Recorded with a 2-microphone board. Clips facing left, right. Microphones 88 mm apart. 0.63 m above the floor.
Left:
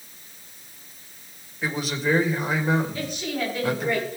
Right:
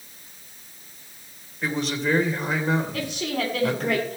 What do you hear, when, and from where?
1.6 s a man speaking: 5° left (ahead or behind), 2.5 m
2.9 s a woman speaking: 75° right (ahead or behind), 5 m